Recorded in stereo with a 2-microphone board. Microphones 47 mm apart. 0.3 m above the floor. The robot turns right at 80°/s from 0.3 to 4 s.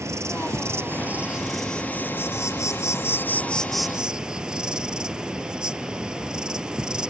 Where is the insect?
100° right; by 7.1 s 165° right.